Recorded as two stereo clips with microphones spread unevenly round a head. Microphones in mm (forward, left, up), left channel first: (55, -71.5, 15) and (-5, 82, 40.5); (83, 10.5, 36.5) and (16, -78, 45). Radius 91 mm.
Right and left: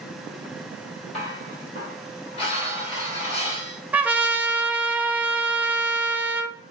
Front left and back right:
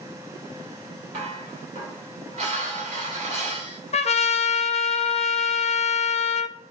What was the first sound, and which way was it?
Dishes clattering, 130° right.